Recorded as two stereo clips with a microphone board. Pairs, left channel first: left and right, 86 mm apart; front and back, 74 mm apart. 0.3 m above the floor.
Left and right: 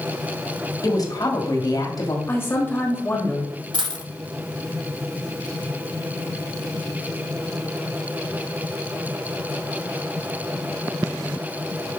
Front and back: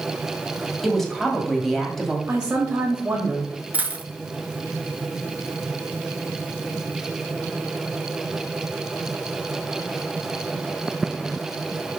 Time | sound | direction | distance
0.8 | a woman speaking | 85° left | 1.7 m
2.3 | a man speaking | 120° left | 1.3 m
3.7 | a dropped coin | 110° right | 0.9 m